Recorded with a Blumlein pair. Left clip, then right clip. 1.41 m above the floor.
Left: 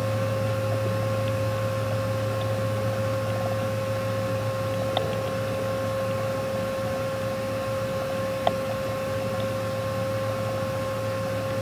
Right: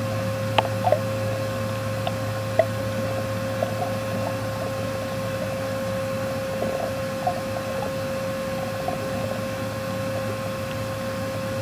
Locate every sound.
0.0 s a fan: 35° right, 1.4 m